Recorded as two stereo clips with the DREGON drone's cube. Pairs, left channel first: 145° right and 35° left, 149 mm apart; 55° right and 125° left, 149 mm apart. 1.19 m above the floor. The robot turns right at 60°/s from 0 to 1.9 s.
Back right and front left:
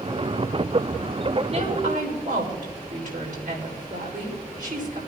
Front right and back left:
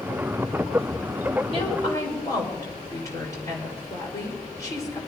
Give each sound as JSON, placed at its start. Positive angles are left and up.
{"t": 1.5, "sound": "a woman speaking", "azimuth_deg": -15, "distance_m": 5.0}